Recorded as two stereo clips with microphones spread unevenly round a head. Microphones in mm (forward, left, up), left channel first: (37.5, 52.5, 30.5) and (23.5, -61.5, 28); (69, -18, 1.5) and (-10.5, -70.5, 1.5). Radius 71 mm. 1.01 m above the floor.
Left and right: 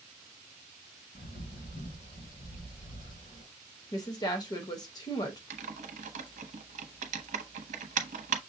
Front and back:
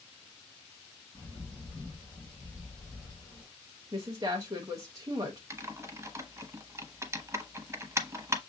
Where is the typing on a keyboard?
85° right, 0.8 m.